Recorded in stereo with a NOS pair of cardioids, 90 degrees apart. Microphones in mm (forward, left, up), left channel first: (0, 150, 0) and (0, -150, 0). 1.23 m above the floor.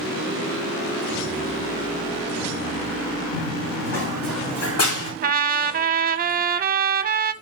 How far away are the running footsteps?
About 4 m.